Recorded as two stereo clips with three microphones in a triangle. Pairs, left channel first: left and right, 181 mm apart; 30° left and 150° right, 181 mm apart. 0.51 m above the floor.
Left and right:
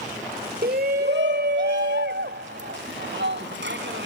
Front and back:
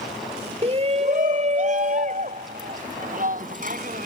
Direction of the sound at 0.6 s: 100° right.